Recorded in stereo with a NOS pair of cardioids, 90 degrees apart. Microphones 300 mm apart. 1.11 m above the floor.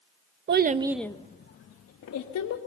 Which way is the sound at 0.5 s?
40° right.